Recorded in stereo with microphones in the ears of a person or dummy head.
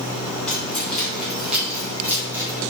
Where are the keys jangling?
5° left (ahead or behind), 3.5 m; by 2.6 s 20° right (ahead or behind), 3 m.